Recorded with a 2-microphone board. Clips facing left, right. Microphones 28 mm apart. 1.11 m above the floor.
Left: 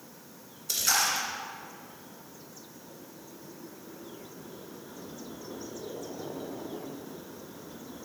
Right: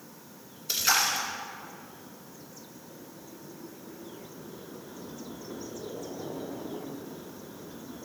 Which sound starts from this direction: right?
A splash, at 0.7 s.